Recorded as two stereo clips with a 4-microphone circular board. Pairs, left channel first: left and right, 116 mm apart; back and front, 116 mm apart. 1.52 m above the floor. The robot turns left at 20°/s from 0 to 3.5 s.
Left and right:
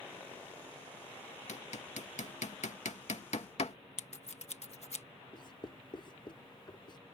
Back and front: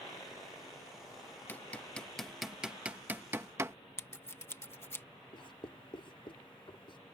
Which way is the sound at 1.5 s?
105° left.